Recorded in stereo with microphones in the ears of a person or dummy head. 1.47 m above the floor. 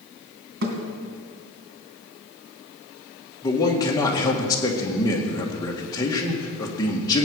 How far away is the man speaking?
About 1.9 m.